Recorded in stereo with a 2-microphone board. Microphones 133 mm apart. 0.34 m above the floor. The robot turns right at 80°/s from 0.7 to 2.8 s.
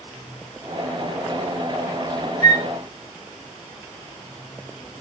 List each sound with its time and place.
2.4 s a flute: 30° left (ahead or behind), 1.1 m; by 2.6 s 20° left (ahead or behind), 1.1 m